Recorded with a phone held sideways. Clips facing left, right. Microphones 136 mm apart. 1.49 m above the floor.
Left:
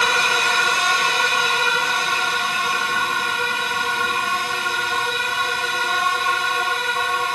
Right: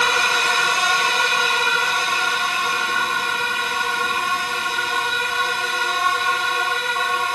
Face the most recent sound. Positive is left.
No sound to turn to.